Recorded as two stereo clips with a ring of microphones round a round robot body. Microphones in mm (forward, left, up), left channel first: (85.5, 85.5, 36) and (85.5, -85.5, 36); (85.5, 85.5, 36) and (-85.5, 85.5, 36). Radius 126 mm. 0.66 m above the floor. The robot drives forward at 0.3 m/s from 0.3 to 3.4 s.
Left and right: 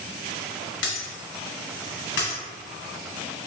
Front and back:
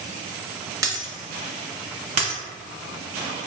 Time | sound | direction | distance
0.8 | breaking glass | 110° left | 1.0 m